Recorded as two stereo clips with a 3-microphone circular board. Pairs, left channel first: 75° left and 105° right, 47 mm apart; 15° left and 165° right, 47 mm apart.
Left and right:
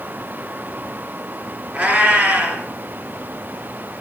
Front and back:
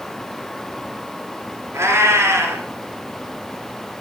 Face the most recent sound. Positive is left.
turn(degrees=-155)